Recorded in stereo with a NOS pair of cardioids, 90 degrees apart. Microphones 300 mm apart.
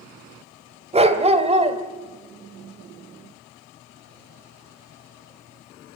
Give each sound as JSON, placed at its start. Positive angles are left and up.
{"t": 0.9, "sound": "a dog barking", "azimuth_deg": -20, "distance_m": 1.9}